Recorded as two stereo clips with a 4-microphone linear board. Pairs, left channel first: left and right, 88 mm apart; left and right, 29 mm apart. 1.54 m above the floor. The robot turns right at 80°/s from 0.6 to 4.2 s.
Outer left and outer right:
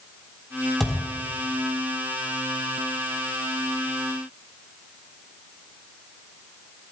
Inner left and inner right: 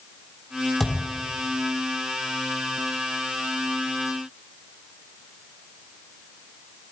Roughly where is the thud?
Centre.